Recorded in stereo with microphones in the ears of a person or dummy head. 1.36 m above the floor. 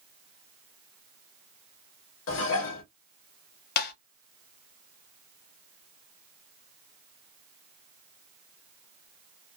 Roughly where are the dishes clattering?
Left.